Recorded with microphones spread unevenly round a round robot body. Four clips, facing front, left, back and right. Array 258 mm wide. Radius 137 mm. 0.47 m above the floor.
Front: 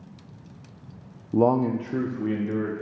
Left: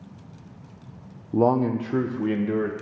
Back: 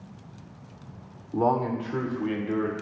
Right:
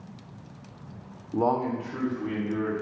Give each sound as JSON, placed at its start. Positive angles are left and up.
{"t": 1.3, "sound": "a man speaking", "azimuth_deg": 50, "distance_m": 0.7}